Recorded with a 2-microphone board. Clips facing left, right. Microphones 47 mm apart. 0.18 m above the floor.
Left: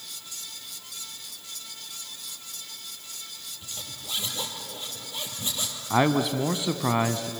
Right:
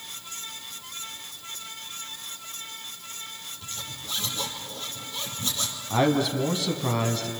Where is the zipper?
20° left (ahead or behind), 4.5 m.